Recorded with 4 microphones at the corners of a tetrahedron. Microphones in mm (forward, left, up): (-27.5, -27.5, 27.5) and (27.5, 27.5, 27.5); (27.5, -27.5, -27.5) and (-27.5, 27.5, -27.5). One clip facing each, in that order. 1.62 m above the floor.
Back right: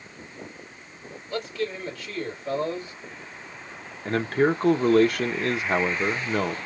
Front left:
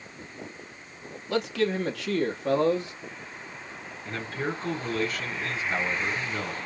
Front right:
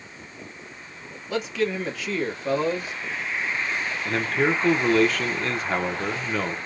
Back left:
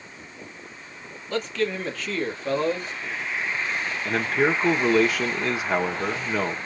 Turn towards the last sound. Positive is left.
turn(degrees=-140)